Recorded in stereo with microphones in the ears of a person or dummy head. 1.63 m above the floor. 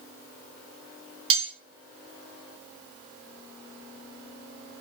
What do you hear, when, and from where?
1.3 s cutlery clinking: 25° right (ahead or behind), 2.5 m